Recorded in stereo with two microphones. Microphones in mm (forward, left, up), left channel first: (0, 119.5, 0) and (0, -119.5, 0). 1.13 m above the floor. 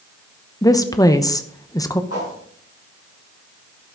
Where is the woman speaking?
15° left (ahead or behind), 0.8 m.